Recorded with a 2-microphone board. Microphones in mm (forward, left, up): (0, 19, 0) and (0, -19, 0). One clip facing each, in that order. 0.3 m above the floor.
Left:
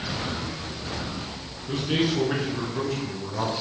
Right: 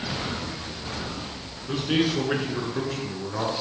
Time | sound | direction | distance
1.7 | a man speaking | 15° right (ahead or behind) | 3.5 m